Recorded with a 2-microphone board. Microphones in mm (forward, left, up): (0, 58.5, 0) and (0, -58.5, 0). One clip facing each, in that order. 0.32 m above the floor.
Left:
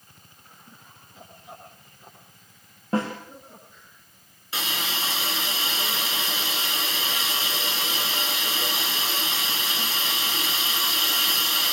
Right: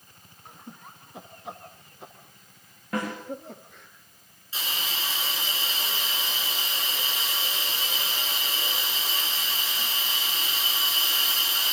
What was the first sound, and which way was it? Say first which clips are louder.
Laughter: right 7 dB; 70° right (ahead or behind).